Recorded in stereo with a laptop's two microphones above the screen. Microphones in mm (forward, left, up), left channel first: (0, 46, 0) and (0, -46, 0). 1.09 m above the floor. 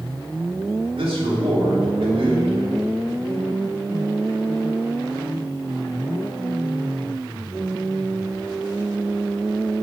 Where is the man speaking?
80° right, 3 m.